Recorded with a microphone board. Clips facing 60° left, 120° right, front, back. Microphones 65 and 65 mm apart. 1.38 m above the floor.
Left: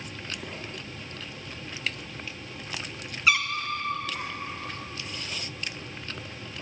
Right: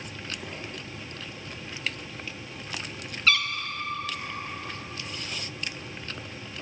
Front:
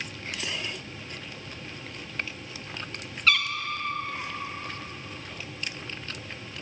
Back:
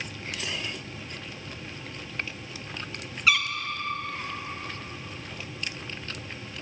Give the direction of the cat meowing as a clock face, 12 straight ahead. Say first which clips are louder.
Left 1 dB, even; 8 o'clock.